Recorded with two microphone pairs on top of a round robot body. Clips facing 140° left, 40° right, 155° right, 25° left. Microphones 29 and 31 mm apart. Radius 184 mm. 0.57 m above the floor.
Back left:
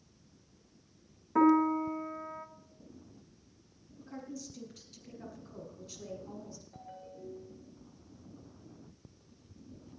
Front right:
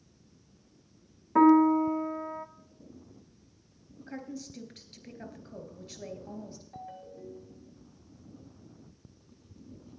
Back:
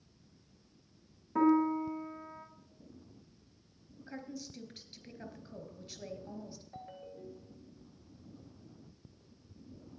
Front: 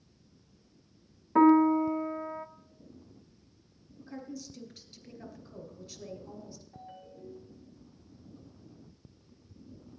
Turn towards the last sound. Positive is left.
turn(degrees=-115)